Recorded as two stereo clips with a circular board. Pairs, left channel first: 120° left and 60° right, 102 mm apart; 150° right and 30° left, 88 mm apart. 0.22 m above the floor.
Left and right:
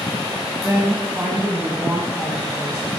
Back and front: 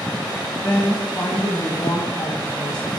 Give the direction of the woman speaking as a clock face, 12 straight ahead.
4 o'clock.